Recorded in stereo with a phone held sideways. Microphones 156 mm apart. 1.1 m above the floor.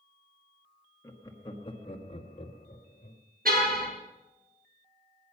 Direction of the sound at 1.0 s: 20° left (ahead or behind).